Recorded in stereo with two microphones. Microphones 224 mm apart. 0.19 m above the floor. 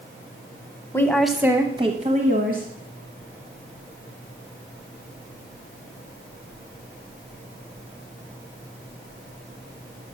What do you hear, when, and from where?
0.9 s a woman speaking: 10° left (ahead or behind), 1.0 m; by 2.7 s 45° right (ahead or behind), 1.5 m